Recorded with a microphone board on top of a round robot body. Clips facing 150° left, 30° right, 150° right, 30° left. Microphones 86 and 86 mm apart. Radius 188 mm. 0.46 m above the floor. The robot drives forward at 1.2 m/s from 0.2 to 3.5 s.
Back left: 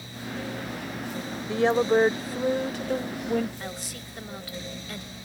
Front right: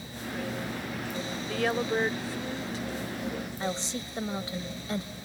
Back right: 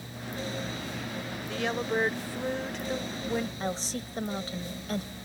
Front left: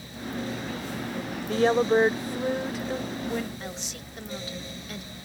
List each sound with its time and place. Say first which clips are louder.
1.5 s a woman speaking: back left 7 dB, front left 9 dB; 80° left; by 3.5 s 130° left
3.6 s a woman speaking: front right 5 dB, back right 5 dB; 95° right